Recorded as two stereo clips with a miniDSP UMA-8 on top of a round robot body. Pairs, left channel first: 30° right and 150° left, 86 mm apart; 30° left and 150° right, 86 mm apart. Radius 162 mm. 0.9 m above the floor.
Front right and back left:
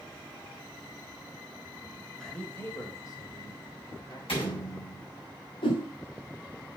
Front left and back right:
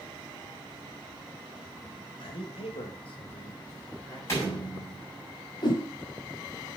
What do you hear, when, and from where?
2.2 s a man speaking: 55° left, 1.9 m; by 4.2 s 5° left, 4 m
4.3 s a door slam: 20° right, 6 m
5.6 s a whoosh: 10° right, 1.0 m